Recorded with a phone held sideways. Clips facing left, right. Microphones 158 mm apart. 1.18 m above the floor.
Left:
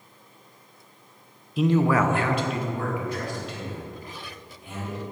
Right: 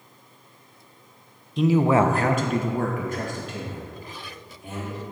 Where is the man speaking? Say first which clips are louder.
Right 2 dB; 5° left (ahead or behind), 0.7 m; by 5.0 s 45° right (ahead or behind), 4 m.